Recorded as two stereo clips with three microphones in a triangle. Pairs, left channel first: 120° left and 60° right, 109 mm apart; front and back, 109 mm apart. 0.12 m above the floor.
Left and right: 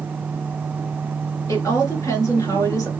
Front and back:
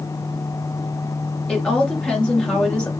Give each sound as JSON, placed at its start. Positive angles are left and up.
{"t": 1.5, "sound": "a woman speaking", "azimuth_deg": 75, "distance_m": 2.0}